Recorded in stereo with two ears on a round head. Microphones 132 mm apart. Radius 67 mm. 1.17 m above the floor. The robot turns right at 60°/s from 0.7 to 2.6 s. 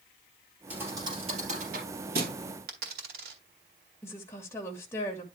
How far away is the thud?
About 3.5 m.